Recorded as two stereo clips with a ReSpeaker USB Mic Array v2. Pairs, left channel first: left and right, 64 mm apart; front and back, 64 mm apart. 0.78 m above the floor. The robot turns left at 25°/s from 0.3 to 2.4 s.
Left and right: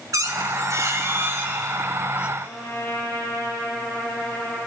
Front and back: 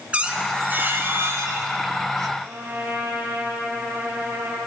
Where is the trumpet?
125° left, 4.5 m.